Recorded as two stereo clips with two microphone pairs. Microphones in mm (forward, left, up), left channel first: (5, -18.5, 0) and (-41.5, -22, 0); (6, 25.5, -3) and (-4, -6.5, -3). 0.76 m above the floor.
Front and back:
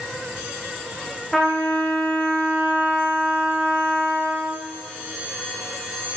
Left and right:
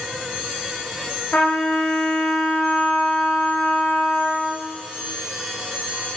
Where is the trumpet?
90° left, 9 m.